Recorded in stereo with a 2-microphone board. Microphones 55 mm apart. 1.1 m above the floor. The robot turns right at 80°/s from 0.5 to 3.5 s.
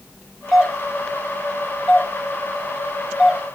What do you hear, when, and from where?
0.5 s a doorbell: 10° right (ahead or behind), 0.9 m; by 3.4 s 25° right (ahead or behind), 0.9 m